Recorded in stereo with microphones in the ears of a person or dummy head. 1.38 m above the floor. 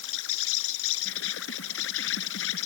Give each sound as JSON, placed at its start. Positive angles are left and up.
{"t": 0.0, "sound": "an insect", "side_deg": 90}